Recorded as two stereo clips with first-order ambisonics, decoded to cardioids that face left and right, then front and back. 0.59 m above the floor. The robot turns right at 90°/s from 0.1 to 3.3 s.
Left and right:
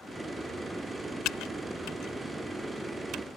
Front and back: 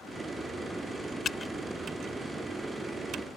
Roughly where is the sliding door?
I don't hear a sliding door.